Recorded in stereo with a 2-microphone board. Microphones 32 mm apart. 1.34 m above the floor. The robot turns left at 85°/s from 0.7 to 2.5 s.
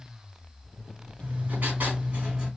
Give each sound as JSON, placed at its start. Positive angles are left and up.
{"t": 1.2, "sound": "writing", "azimuth_deg": -55, "distance_m": 3.0}